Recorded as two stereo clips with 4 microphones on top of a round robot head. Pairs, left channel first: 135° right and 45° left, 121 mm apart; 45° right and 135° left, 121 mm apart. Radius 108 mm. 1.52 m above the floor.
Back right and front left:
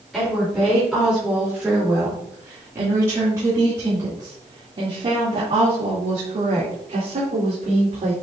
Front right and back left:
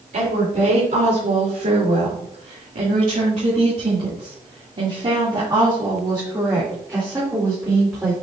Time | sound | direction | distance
0.1 | a woman speaking | 135° left | 4 m